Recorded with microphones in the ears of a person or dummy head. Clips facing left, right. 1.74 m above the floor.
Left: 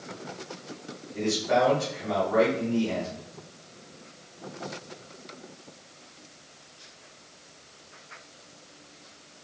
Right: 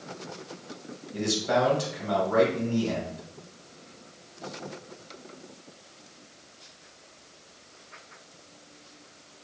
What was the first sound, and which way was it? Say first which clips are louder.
A man speaking: left 1 dB; 80° right.